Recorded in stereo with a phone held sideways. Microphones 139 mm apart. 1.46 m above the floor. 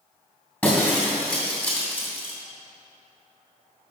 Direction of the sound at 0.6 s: 15° left (ahead or behind).